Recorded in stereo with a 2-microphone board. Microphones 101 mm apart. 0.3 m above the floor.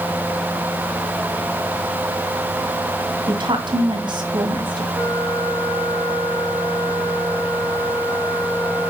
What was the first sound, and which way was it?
A woman speaking, 50° right (ahead or behind).